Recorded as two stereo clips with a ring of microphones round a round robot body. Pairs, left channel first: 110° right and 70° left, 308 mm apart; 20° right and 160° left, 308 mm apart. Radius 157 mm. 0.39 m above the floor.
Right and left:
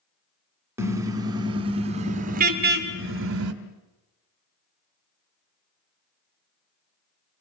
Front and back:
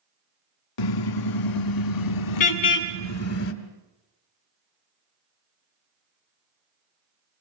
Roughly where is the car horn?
Ahead.